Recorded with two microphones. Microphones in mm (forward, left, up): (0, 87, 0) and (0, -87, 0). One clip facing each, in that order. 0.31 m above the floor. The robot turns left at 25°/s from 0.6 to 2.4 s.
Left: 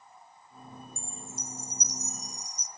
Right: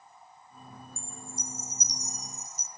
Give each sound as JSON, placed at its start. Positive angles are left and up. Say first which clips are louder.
{"t": 1.0, "sound": "a chime", "louder": "even", "azimuth_deg": 30, "distance_m": 0.7}